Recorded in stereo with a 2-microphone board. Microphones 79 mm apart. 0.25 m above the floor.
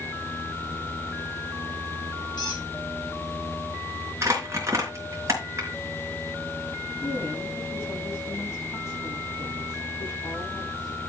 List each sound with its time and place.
2.4 s a squeak: 65° left (ahead or behind), 3.5 m
4.2 s crumpling: 35° right (ahead or behind), 3.5 m
7.0 s a woman speaking: 40° left (ahead or behind), 7 m